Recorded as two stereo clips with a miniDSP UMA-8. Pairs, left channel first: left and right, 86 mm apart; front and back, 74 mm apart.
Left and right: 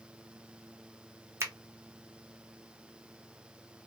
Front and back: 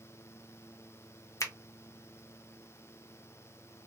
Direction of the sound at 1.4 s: 40° right.